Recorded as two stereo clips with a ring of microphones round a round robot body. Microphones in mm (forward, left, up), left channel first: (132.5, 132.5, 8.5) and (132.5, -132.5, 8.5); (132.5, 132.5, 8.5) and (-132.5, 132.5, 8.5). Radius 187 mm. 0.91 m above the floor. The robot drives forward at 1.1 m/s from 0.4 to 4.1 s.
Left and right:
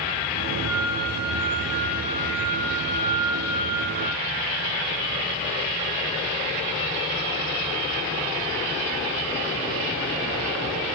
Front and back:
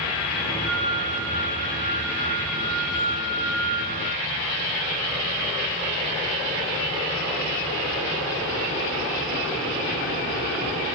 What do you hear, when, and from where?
0.6 s a flute: 60° right, 4 m; by 4.3 s 120° right, 4 m